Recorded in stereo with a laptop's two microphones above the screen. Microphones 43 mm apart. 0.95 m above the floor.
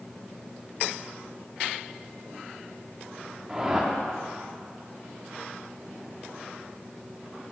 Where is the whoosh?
15° right (ahead or behind), 1.1 m.